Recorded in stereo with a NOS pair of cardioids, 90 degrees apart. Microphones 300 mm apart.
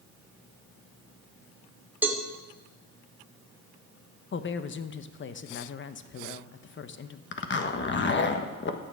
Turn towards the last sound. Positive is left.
turn(degrees=40)